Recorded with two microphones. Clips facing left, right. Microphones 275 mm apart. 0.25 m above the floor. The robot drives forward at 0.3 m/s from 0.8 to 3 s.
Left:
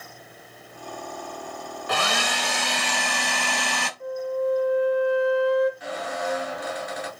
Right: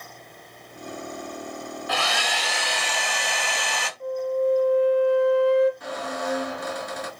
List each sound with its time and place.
1.9 s a hair dryer: 55° left (ahead or behind), 0.6 m; by 3.9 s 50° left (ahead or behind), 0.6 m
4.0 s a flute: 30° right (ahead or behind), 0.8 m
5.8 s a squeak: 50° right (ahead or behind), 1.7 m